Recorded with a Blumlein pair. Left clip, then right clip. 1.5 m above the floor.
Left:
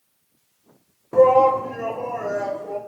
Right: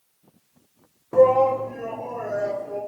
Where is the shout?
Straight ahead, 0.6 m; by 2.8 s 40° left, 2.5 m.